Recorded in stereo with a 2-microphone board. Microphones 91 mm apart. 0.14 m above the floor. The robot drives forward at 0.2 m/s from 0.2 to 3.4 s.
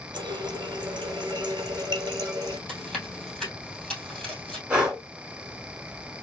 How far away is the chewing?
About 3 m.